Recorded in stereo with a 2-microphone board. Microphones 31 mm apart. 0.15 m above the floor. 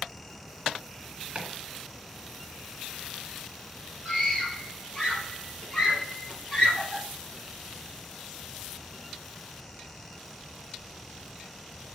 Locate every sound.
1.4 s chopping: 35° right (ahead or behind), 1.9 m
4.0 s a scream: 25° left (ahead or behind), 3.5 m